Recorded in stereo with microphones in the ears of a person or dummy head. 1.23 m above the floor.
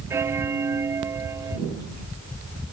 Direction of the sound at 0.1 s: 15° right (ahead or behind).